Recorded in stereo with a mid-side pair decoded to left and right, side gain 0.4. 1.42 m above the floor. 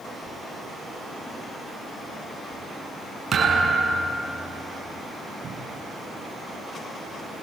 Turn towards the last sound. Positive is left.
turn(degrees=-55)